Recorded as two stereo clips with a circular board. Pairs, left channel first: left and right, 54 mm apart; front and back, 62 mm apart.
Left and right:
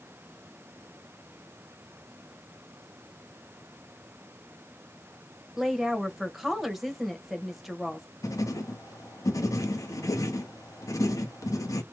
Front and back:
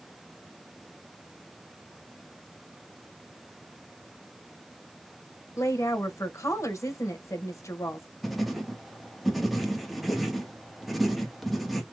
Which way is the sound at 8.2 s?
90° left.